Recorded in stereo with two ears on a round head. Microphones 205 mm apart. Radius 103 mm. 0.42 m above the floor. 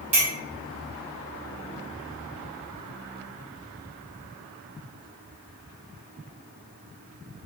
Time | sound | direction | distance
0.1 | a clink | 30° right (ahead or behind) | 1.1 m